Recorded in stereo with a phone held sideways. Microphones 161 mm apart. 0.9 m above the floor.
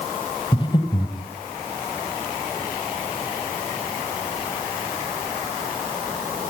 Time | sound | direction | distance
0.5 | breathing | 30° left (ahead or behind) | 2.5 m